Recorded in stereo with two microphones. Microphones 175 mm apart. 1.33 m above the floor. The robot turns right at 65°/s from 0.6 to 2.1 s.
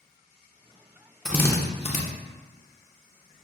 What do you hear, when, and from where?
1.2 s a drill: 5° left (ahead or behind), 0.5 m; by 2.0 s 45° left (ahead or behind), 0.5 m